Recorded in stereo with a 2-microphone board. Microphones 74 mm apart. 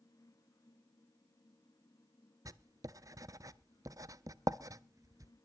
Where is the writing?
50° right (ahead or behind), 0.5 m.